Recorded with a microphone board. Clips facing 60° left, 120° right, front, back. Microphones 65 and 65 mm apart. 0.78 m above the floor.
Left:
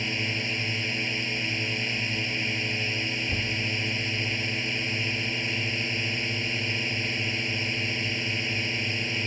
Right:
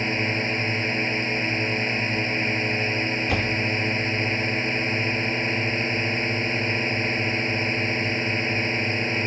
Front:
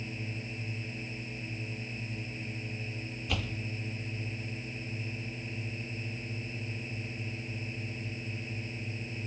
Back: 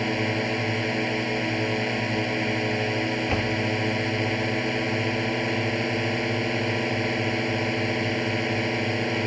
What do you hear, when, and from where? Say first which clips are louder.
0.0 s a drone: right 6 dB, back 16 dB; 175° right
3.3 s a door slam: right 6 dB, back 12 dB; 120° right